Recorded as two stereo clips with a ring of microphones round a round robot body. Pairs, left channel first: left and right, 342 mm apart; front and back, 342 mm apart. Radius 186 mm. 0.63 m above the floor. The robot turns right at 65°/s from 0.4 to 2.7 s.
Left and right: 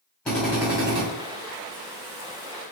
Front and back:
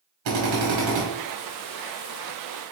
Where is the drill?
175° left, 1.7 m; by 1.0 s 140° right, 1.7 m.